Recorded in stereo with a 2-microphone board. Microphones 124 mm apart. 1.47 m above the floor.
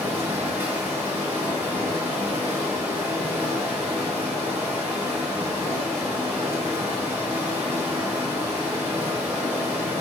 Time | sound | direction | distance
0.0 | running water | 15° right (ahead or behind) | 1.2 m